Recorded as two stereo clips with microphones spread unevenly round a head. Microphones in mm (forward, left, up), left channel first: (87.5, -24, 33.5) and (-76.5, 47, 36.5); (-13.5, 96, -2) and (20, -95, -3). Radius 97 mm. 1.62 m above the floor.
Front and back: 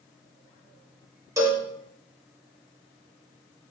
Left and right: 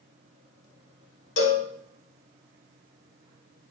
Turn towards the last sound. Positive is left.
turn(degrees=85)